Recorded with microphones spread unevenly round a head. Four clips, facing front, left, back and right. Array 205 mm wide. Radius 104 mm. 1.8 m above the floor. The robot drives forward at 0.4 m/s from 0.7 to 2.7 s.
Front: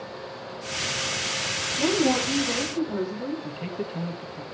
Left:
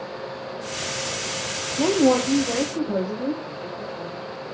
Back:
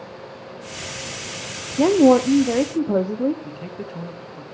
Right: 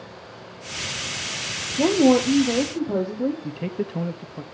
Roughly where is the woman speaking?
Behind.